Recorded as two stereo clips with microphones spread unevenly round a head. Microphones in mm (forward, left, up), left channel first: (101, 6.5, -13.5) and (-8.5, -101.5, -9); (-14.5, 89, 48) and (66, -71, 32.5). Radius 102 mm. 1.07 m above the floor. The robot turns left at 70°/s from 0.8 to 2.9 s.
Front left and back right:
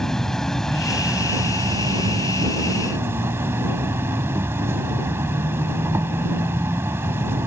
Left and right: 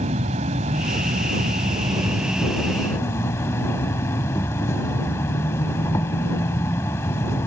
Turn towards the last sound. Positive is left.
turn(degrees=170)